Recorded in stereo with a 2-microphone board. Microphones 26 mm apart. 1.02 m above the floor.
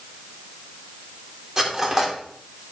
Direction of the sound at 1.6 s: 25° right (ahead or behind).